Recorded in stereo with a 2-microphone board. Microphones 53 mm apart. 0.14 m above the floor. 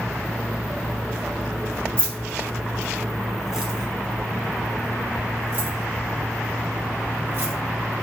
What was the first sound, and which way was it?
Keys jangling, 20° left (ahead or behind).